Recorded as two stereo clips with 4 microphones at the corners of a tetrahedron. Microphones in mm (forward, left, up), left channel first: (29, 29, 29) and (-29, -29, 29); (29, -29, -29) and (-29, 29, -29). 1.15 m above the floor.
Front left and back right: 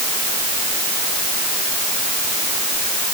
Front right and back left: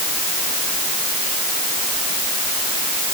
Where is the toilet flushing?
I don't hear a toilet flushing.